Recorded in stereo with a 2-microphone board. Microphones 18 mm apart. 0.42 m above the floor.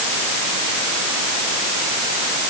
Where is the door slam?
No door slam in this recording.